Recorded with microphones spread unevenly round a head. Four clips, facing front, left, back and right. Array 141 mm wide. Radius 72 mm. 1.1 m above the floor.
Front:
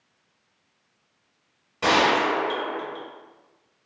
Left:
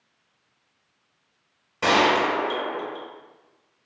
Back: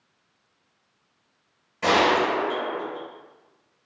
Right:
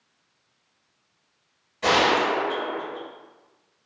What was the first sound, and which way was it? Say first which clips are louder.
A gunshot: left 1 dB, even; 55° left.